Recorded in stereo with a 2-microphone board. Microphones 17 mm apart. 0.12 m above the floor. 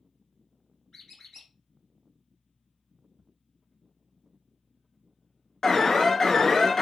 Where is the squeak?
30° left (ahead or behind), 2.5 m.